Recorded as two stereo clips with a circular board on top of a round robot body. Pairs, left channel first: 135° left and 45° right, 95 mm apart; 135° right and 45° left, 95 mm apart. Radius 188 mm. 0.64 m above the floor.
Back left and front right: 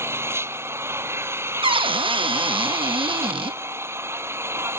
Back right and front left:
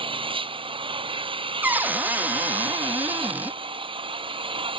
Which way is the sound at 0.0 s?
20° left.